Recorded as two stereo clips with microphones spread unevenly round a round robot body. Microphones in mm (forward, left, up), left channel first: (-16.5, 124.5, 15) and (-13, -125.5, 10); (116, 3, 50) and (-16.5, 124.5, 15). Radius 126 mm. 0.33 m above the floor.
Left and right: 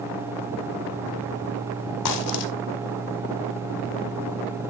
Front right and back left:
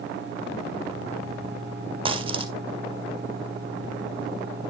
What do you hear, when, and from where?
2.0 s a dropped coin: 75° left, 1.4 m